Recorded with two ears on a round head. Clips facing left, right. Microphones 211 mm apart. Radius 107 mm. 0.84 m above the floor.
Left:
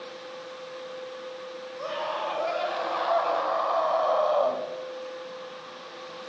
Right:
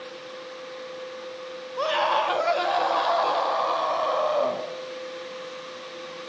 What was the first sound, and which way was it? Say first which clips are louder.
A scream: right 7 dB; 80° right.